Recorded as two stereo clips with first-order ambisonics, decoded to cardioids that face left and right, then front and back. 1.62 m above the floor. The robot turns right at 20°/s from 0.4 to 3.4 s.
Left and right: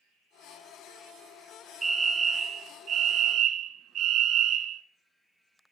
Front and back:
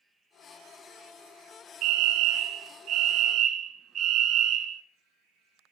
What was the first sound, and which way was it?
A fire alarm, 160° right.